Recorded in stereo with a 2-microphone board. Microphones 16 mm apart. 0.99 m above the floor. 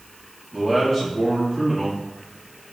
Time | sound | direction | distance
0.5 | a man speaking | 5° left (ahead or behind) | 2 m